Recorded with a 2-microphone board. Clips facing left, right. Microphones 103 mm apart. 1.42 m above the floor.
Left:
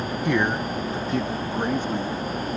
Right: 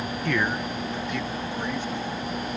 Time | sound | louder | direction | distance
0.2 | a man speaking | left 3 dB | 15° left (ahead or behind) | ?